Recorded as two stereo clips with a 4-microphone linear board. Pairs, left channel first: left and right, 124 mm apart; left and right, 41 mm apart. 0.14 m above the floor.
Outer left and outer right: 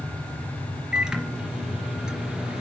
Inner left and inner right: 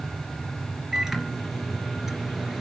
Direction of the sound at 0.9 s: 5° right (ahead or behind).